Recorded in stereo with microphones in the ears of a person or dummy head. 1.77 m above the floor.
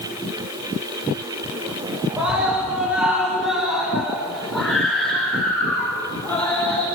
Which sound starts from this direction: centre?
A scream, at 2.2 s.